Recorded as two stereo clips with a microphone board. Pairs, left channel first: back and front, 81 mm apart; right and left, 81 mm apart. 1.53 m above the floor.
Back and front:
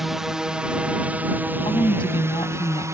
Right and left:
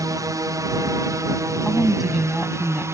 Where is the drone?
85° left; by 3.0 s 45° left.